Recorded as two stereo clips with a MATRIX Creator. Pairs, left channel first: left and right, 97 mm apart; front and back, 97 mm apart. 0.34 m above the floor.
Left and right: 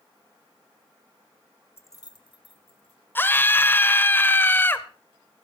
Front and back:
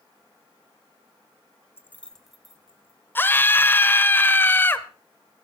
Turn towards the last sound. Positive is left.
turn(degrees=45)